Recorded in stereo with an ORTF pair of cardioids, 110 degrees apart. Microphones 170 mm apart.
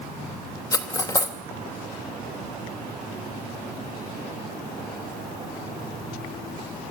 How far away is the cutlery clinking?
About 2.5 m.